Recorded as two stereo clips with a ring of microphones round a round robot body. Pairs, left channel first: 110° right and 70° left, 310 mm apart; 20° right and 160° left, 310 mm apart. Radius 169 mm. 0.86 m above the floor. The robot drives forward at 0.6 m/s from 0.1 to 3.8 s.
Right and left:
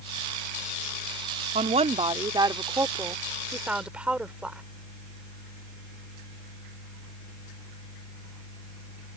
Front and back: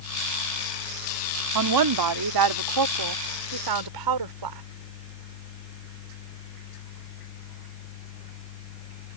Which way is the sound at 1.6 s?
135° left.